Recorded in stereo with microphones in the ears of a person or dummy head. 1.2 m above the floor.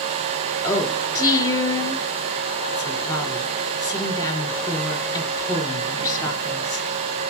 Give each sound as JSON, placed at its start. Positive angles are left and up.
{"t": 0.6, "sound": "a woman speaking", "side_deg": 20, "distance_m": 4.0}